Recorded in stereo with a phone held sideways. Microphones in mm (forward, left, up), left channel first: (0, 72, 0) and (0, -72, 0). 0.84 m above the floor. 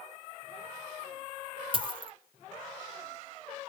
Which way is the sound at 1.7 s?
35° right (ahead or behind).